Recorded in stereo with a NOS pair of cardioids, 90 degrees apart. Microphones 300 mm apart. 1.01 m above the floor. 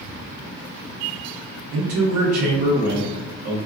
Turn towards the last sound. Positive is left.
turn(degrees=-65)